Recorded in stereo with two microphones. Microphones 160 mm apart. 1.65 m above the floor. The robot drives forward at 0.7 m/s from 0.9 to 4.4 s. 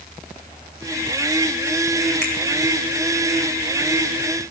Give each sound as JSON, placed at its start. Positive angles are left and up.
{"t": 2.2, "sound": "a finger snap", "side_deg": -85, "distance_m": 5.5}